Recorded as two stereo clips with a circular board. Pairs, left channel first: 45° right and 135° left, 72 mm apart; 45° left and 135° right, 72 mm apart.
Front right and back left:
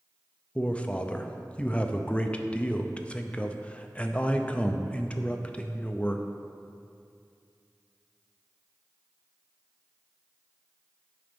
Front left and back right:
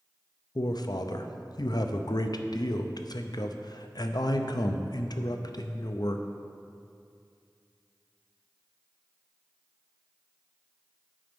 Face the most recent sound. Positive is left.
turn(degrees=25)